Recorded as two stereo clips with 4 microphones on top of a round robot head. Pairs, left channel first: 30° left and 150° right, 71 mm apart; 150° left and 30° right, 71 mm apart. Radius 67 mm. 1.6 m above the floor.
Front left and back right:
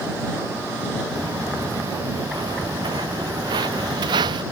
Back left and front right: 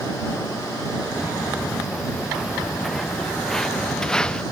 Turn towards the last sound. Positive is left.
turn(degrees=-135)